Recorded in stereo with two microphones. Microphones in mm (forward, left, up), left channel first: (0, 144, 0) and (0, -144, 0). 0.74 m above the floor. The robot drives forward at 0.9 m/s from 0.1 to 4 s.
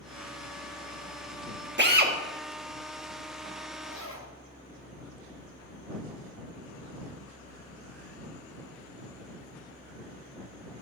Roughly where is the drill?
Right.